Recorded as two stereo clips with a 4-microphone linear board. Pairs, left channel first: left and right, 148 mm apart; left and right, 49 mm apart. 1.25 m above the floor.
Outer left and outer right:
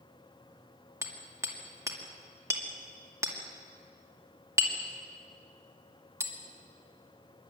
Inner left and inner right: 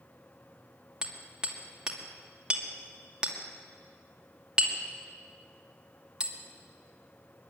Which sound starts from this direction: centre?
Hammering, at 1.0 s.